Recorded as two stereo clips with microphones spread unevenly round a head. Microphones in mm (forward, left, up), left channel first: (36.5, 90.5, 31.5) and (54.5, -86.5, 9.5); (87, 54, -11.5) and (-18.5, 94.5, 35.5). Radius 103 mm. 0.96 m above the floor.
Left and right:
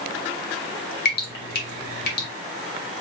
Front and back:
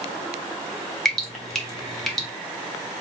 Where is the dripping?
70° left, 1.5 m.